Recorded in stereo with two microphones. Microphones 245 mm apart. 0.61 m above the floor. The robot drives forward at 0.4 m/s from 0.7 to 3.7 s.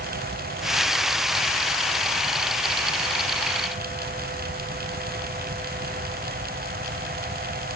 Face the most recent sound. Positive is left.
No sound to turn to.